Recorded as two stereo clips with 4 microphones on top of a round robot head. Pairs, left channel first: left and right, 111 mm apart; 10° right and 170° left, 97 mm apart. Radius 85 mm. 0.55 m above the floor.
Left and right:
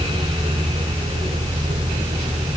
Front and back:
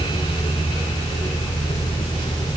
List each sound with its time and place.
Only background noise.